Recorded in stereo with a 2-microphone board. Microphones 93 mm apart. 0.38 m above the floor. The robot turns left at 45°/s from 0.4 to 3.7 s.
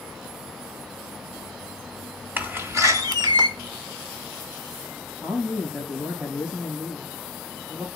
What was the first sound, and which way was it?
A door slam, 25° right.